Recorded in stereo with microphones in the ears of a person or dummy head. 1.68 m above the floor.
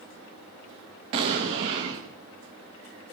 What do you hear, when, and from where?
1.1 s an explosion: 20° right (ahead or behind), 1.0 m